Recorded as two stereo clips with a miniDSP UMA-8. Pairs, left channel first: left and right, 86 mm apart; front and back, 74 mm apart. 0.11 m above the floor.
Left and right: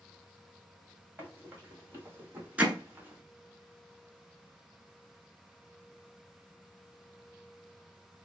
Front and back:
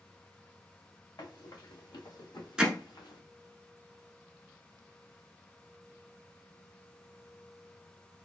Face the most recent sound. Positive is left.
turn(degrees=-125)